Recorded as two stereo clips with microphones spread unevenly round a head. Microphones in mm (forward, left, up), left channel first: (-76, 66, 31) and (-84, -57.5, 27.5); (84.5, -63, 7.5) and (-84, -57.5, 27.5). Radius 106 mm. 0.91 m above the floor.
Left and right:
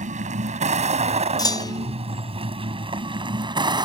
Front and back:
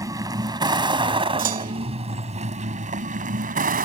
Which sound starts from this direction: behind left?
A clunk, at 1.4 s.